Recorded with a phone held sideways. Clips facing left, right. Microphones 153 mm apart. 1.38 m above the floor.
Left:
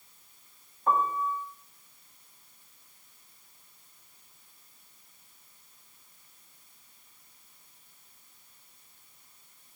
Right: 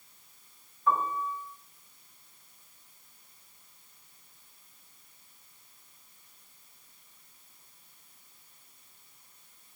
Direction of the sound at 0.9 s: 50° left (ahead or behind).